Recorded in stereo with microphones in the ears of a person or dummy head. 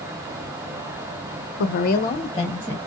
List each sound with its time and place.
1.6 s a woman speaking: 65° left (ahead or behind), 0.7 m; by 2.8 s 5° left (ahead or behind), 1.5 m